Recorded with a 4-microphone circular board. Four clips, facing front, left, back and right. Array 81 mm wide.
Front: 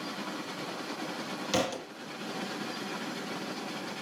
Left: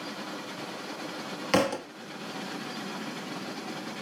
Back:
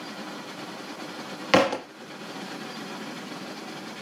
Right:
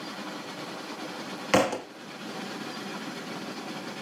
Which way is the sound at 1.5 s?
160° right.